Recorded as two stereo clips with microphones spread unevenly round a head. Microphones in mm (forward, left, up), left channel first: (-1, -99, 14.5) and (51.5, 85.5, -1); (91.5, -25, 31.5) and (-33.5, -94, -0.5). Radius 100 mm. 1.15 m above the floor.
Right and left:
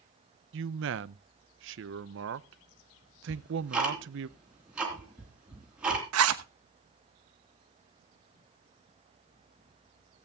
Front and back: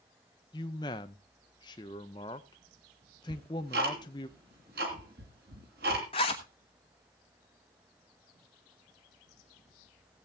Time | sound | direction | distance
0.5 | a man speaking | 100° left | 0.7 m
3.3 | ticking | 160° left | 3 m
6.1 | a zipper | 95° left | 1.1 m